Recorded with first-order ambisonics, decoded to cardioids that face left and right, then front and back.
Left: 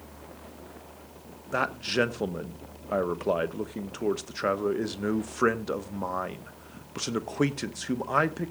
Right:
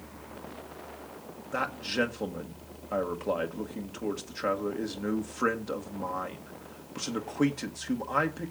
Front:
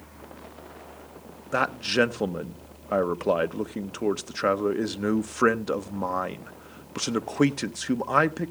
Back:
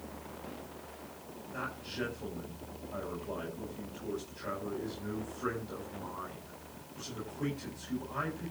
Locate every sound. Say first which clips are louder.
1.5 s a man speaking: left 3 dB, front 16 dB; 15° left, 0.9 m